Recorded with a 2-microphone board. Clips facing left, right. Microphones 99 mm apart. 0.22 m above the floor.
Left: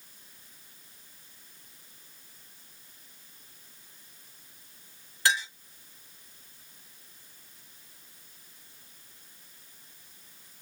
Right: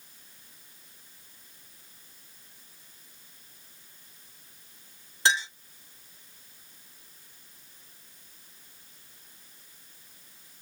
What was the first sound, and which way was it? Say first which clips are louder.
A clink: right 2 dB; 25° right (ahead or behind).